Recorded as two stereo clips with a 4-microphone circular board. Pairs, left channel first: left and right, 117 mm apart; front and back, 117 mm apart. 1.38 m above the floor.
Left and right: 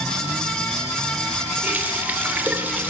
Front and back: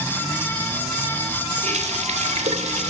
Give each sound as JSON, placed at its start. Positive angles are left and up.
{"t": 1.6, "sound": "a running tap", "azimuth_deg": -165, "distance_m": 3.0}